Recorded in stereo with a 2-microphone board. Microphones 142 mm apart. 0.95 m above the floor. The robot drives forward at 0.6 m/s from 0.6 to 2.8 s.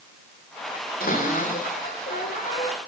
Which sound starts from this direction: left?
A cupboard door, at 1.0 s.